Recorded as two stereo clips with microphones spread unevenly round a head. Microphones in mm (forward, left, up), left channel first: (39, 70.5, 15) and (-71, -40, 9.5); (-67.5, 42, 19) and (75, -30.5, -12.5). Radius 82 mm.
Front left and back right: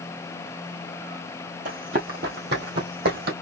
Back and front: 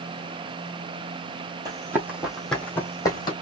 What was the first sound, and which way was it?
Running footsteps, 100° right.